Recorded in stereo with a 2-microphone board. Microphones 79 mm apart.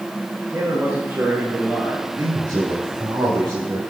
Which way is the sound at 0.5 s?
40° right (ahead or behind).